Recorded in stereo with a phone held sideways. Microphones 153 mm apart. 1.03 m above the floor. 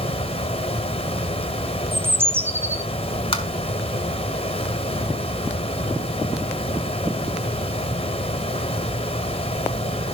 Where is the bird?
15° right (ahead or behind), 0.6 m.